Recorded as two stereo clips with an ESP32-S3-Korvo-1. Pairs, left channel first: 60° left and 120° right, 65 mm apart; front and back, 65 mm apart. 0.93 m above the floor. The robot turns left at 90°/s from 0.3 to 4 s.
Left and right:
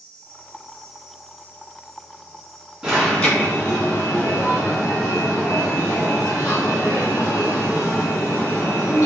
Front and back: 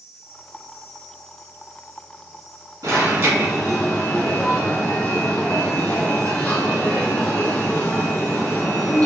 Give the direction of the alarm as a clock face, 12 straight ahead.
6 o'clock.